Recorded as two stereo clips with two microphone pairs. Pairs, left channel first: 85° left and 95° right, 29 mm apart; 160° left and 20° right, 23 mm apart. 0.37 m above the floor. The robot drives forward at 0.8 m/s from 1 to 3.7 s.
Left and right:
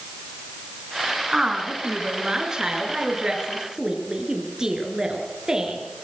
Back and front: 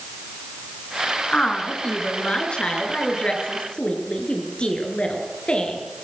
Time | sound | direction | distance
1.3 | a woman speaking | 155° right | 5 m